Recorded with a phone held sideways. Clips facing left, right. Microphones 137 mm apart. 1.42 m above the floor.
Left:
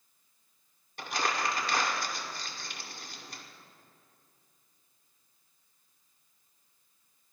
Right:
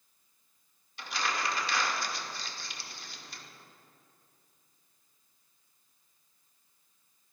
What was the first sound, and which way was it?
Crumpling, 50° left (ahead or behind).